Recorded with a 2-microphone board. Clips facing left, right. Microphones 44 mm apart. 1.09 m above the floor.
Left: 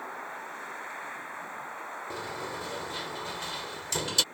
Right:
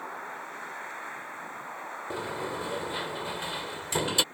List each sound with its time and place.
2.1 s a sliding door: 20° right (ahead or behind)